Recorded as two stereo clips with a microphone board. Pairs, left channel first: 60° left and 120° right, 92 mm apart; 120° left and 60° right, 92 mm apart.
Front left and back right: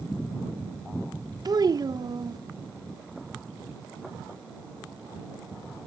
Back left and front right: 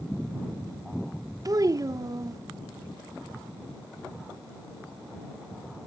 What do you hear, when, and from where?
1.4 s a child speaking: 95° right